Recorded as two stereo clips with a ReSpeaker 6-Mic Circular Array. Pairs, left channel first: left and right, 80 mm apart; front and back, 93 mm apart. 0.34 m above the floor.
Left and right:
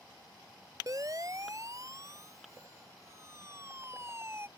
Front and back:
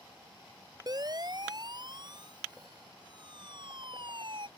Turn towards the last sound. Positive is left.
turn(degrees=-150)